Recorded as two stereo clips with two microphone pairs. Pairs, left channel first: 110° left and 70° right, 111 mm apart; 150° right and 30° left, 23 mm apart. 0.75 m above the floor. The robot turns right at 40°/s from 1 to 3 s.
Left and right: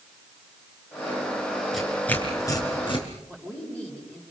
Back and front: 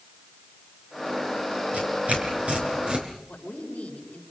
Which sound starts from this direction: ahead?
Tearing paper, at 1.7 s.